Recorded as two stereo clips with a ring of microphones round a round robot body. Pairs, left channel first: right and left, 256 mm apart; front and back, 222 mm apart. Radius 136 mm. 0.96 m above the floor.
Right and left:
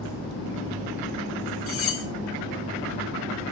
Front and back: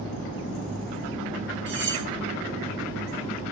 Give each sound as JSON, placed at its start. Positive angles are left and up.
{"t": 1.7, "sound": "cutlery clinking", "azimuth_deg": -130, "distance_m": 4.0}